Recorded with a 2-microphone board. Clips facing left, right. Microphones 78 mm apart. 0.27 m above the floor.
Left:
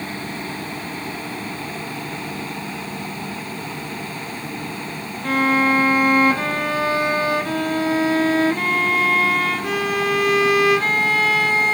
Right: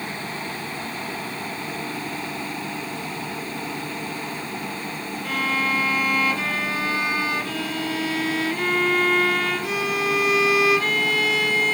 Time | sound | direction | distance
5.2 | a violin | 45° left (ahead or behind) | 1.1 m